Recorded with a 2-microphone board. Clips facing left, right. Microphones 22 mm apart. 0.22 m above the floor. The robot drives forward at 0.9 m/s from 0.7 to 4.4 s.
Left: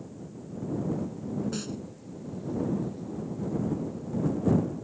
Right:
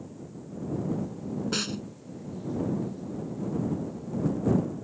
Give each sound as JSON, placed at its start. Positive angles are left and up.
{"t": 1.5, "sound": "a snare drum", "side_deg": -45}